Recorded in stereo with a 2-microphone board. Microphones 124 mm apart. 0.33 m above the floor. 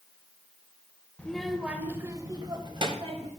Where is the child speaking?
10° left (ahead or behind), 1.0 m; by 3.3 s 50° right (ahead or behind), 1.7 m.